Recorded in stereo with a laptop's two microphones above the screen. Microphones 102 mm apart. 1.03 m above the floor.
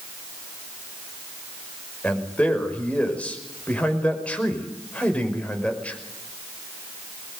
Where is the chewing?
No chewing in this recording.